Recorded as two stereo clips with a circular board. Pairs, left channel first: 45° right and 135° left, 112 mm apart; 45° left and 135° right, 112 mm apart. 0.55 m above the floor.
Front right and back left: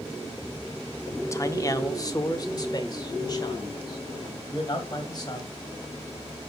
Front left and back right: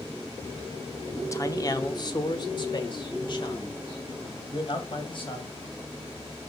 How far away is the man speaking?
About 0.7 m.